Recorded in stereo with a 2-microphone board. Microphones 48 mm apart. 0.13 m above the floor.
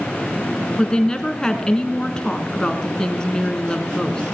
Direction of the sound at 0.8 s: 15° left (ahead or behind).